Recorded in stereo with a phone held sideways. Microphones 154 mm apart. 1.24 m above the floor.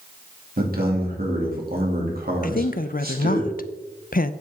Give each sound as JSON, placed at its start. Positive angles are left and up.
{"t": 0.6, "sound": "a man speaking", "side_deg": -75, "distance_m": 2.5}
{"t": 2.4, "sound": "a woman speaking", "side_deg": 65, "distance_m": 0.6}